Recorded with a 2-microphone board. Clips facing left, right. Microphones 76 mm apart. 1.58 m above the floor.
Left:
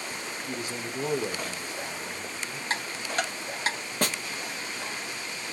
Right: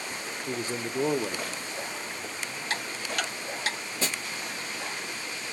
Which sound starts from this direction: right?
A man speaking, at 0.5 s.